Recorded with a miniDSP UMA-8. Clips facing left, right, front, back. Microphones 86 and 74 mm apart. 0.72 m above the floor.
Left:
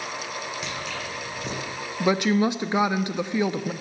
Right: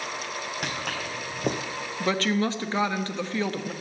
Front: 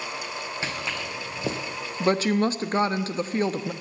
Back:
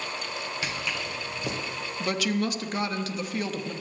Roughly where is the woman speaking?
Ahead left.